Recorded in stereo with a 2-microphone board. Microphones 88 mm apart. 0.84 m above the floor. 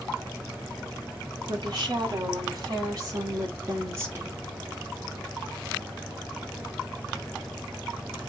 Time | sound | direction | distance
1.5 | a woman speaking | 50° right (ahead or behind) | 3.5 m